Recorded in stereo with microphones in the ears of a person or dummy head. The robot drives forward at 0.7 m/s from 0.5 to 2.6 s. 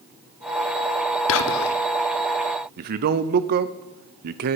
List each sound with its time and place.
1.3 s whispering: 75° left (ahead or behind), 0.8 m; by 1.8 s 55° left (ahead or behind), 0.9 m
2.8 s a man speaking: 50° right (ahead or behind), 0.7 m